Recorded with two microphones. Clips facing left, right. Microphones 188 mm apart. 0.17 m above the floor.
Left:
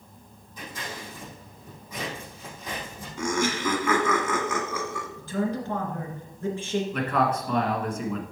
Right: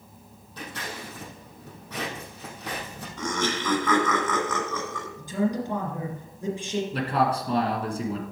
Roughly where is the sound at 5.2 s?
Centre.